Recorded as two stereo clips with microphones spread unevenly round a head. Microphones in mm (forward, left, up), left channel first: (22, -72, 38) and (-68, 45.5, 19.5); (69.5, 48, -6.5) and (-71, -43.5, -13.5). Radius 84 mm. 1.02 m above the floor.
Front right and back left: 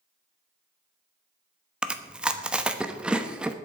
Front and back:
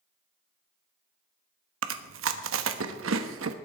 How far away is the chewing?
About 1.0 m.